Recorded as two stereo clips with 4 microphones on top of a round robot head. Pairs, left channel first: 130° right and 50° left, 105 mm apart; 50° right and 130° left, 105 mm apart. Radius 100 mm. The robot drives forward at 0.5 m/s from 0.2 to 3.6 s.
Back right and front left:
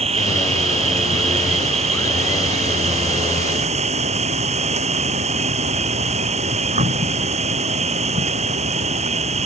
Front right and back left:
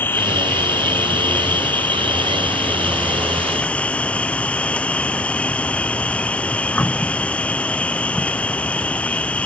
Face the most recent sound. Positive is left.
turn(degrees=30)